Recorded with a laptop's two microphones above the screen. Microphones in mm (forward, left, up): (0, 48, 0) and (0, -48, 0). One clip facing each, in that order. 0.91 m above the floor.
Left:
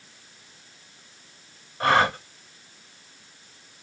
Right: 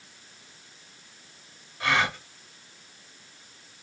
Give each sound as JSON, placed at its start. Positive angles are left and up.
{"t": 1.8, "sound": "a gasp", "side_deg": 45, "distance_m": 1.0}